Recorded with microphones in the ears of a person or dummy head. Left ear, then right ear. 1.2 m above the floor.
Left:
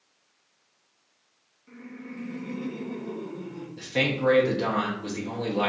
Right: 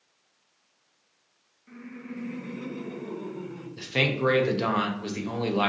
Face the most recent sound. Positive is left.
turn(degrees=-25)  # may be behind; listen again after turning